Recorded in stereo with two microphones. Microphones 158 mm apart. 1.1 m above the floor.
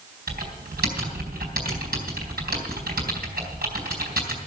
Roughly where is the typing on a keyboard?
Right.